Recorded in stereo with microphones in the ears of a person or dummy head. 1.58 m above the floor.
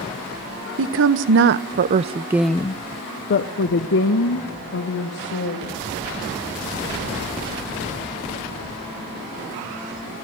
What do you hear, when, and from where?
0.8 s a woman speaking: 70° right (ahead or behind), 1.5 m; by 5.8 s 75° left (ahead or behind), 3 m